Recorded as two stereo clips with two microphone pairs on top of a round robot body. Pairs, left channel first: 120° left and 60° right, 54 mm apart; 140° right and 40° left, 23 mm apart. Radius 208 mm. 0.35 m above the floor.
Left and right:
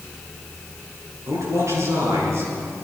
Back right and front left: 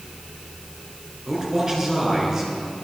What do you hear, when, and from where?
1.3 s a man speaking: 25° right, 8 m